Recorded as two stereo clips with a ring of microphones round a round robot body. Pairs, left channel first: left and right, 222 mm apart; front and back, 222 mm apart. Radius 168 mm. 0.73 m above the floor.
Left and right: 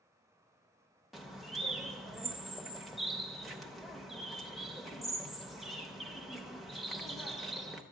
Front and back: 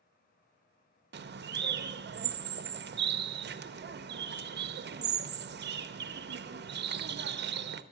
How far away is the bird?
About 0.7 m.